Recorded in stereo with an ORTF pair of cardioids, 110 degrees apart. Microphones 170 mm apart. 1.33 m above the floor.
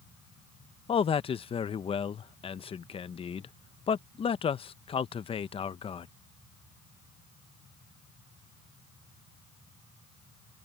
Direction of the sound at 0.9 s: 35° left.